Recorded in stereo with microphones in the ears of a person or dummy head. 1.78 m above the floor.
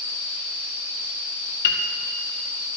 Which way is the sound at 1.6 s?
60° left (ahead or behind).